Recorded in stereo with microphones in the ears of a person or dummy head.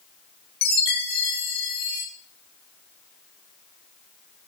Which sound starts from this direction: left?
A chime, at 0.6 s.